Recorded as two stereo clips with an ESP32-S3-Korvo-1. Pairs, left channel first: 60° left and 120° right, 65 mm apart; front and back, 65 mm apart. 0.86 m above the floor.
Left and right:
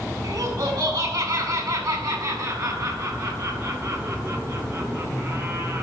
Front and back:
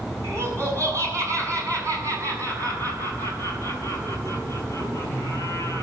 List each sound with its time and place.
0.2 s laughter: 135° right, 7.5 m; by 5.8 s 165° right, 6.5 m